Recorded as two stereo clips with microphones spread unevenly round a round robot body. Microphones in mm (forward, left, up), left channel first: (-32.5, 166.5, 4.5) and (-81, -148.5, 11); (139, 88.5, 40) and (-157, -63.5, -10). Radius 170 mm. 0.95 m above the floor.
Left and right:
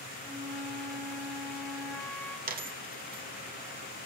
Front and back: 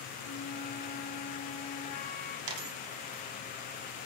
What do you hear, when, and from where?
0.2 s a flute: 5° right, 1.8 m
2.5 s a dropped coin: 160° right, 1.2 m